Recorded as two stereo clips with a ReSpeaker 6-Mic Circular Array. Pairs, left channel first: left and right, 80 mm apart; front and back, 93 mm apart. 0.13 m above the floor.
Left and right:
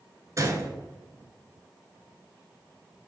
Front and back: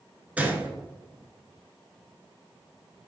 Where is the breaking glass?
No breaking glass in this recording.